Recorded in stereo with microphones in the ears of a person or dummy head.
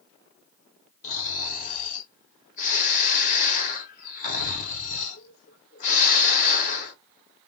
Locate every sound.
1.0 s snoring: 40° left (ahead or behind), 0.9 m